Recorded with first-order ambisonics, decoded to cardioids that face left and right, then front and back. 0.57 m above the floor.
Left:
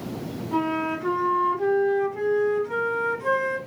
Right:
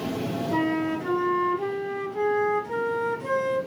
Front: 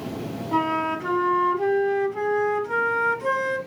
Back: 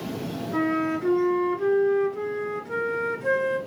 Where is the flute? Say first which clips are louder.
Left 2 dB, front 2 dB; straight ahead, 4 m.